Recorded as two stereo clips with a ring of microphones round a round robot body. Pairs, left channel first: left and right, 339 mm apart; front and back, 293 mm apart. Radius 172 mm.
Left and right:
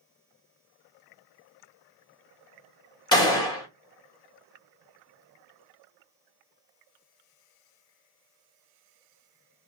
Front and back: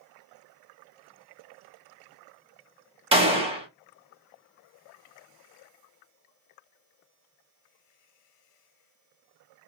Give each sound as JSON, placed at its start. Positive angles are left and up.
{"t": 3.1, "sound": "a gunshot", "azimuth_deg": 145, "distance_m": 1.0}